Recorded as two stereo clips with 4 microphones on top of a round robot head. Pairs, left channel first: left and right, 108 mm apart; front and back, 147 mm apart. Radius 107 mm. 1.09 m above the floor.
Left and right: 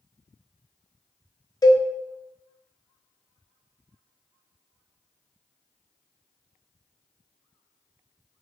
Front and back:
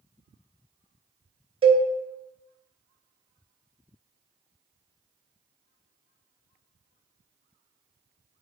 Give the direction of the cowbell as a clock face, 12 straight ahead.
7 o'clock.